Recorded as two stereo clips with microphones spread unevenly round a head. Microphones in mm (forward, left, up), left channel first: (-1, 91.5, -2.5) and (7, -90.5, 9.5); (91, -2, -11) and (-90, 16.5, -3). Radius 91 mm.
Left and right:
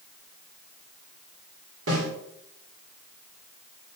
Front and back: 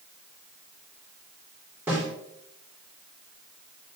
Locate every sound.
1.9 s a snare drum: 105° right, 3 m